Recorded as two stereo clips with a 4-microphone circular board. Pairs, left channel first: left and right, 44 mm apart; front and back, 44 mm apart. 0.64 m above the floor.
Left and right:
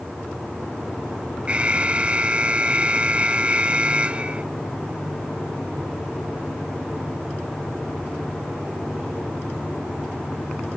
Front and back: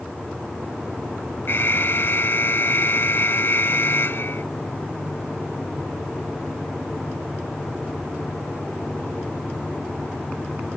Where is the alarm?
30° right.